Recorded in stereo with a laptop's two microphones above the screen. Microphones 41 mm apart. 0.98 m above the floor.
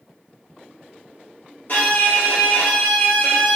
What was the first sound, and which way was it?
A violin, 50° left (ahead or behind).